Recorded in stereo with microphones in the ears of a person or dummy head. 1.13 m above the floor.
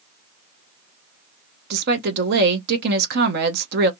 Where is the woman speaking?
55° right (ahead or behind), 0.7 m.